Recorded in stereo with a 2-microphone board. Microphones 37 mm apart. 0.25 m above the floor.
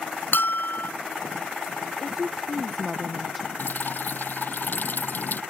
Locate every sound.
0.3 s a bell: 65° left (ahead or behind)
2.0 s a woman speaking: centre (ahead or behind)
3.6 s dripping: 60° left (ahead or behind)